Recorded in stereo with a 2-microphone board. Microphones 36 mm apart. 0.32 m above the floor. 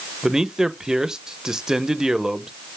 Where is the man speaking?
15° right (ahead or behind), 0.9 m.